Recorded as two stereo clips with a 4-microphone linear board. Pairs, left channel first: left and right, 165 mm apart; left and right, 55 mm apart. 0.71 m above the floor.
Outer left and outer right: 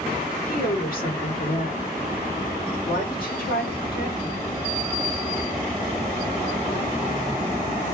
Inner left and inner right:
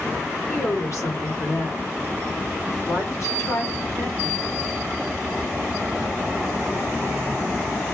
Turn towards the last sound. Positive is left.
turn(degrees=60)  # may be behind; listen again after turning